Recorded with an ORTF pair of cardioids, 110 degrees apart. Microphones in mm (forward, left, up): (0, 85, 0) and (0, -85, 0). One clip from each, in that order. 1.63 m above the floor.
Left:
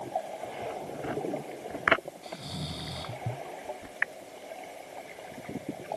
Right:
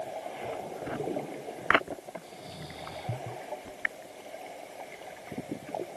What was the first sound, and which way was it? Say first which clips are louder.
Snoring: left 4 dB; 55° left.